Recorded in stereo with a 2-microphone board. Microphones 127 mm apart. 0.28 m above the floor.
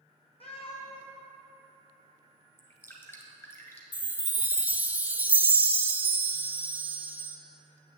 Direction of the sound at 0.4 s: 50° left (ahead or behind).